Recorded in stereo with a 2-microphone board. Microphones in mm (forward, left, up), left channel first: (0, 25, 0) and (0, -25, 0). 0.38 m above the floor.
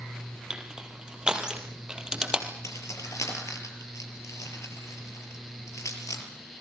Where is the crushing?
15° right (ahead or behind), 3.5 m.